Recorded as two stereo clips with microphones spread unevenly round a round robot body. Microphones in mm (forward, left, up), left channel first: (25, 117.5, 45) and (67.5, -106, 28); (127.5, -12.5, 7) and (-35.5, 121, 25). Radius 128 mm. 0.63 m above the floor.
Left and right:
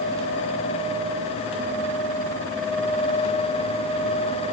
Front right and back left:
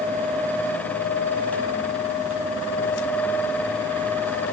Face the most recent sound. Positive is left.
No sound to turn to.